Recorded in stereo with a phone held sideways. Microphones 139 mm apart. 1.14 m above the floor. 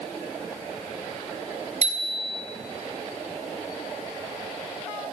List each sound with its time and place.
1.8 s a bicycle bell: 55° right (ahead or behind), 4 m